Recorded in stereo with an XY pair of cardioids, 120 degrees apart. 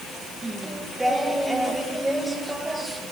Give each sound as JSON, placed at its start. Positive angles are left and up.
{"t": 0.4, "sound": "singing", "azimuth_deg": -10, "distance_m": 1.9}